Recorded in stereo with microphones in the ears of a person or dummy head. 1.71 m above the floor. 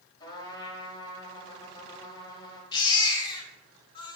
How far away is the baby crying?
About 1.1 m.